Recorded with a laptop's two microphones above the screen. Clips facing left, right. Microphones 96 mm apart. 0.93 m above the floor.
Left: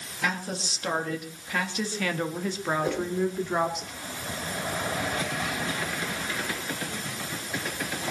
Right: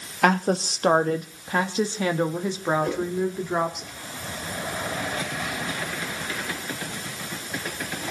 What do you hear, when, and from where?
0.2 s a woman speaking: 60° right (ahead or behind), 1.3 m; by 3.8 s centre (ahead or behind), 2 m
2.8 s a whoosh: 10° left (ahead or behind), 4.5 m